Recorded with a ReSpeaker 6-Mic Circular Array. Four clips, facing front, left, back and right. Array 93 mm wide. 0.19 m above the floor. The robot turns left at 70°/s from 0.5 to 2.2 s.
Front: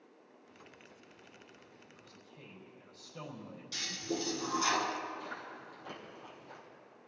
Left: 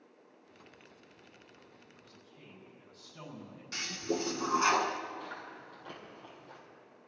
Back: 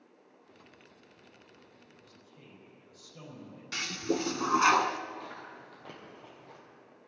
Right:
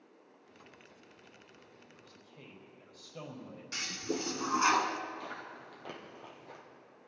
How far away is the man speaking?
About 5 m.